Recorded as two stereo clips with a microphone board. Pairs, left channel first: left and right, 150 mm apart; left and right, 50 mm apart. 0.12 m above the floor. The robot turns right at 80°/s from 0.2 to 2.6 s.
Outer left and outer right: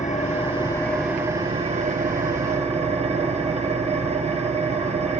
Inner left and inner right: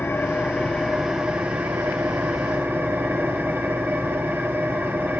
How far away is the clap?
No clap in this recording.